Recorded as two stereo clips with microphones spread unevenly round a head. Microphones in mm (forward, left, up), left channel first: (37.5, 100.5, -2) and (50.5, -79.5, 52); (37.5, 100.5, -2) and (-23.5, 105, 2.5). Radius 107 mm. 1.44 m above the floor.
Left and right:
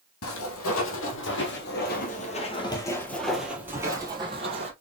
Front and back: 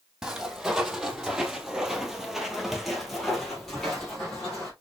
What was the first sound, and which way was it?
Footsteps, 105° left.